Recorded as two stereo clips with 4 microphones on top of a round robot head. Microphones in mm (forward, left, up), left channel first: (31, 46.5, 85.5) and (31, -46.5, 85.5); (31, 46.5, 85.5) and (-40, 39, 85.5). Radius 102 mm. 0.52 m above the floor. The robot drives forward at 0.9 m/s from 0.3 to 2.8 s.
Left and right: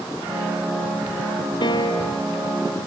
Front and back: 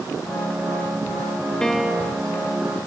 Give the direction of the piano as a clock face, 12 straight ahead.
9 o'clock.